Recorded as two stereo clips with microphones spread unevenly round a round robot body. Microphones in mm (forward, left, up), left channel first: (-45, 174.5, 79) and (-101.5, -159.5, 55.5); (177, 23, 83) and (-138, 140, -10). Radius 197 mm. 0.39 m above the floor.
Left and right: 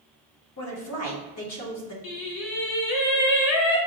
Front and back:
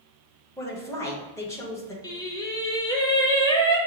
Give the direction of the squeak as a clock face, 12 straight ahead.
No squeak in this recording.